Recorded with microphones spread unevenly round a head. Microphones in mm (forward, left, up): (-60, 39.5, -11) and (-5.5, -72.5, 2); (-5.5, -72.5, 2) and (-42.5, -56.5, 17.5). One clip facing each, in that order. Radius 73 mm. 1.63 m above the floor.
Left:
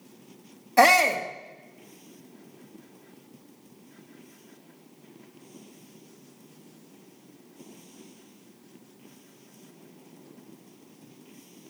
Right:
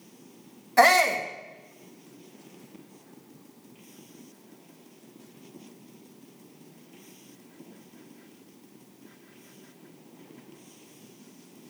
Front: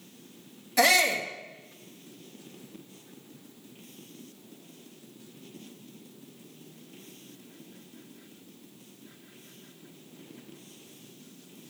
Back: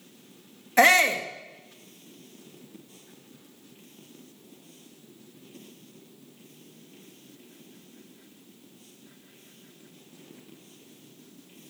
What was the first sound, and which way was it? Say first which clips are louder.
A shout: left 1 dB, back 4 dB; 165° right.